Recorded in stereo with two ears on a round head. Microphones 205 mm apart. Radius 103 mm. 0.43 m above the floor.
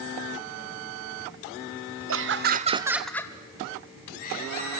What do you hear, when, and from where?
2.1 s laughter: 60° right (ahead or behind), 1.4 m; by 4.8 s 40° left (ahead or behind), 3.5 m